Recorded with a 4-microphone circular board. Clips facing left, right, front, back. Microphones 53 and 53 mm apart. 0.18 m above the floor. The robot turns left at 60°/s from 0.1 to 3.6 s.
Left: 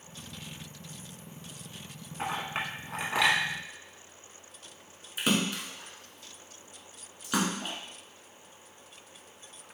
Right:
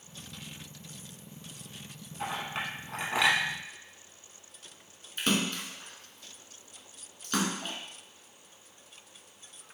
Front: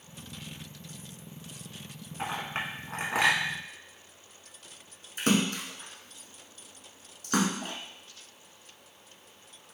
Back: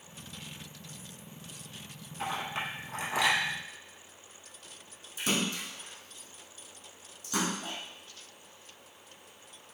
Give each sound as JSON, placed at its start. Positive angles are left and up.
{"t": 2.2, "sound": "a clink", "azimuth_deg": 55, "distance_m": 1.0}
{"t": 5.2, "sound": "a splash", "azimuth_deg": 10, "distance_m": 0.7}